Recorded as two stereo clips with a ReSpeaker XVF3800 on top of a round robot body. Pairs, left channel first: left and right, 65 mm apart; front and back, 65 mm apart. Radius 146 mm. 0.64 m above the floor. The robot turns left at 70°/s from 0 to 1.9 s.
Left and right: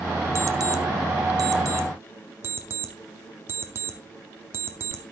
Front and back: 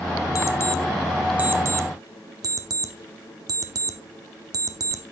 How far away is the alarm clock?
About 0.7 m.